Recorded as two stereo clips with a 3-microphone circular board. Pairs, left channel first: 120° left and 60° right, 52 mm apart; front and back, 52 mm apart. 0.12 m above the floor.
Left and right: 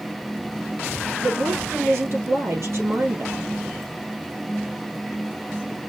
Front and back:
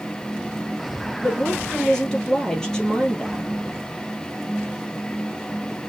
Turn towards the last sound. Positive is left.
turn(degrees=-75)